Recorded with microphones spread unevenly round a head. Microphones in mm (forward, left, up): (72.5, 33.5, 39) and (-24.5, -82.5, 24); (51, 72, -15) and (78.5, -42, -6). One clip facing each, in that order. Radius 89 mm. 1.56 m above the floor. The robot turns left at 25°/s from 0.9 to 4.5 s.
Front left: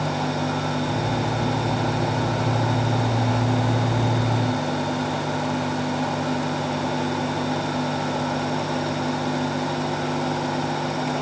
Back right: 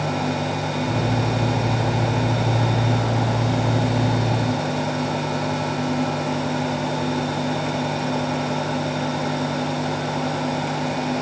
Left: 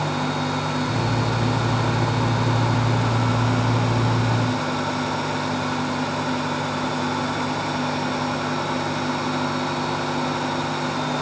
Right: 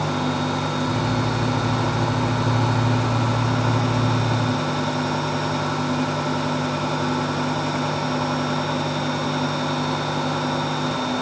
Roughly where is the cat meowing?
No cat meowing in this recording.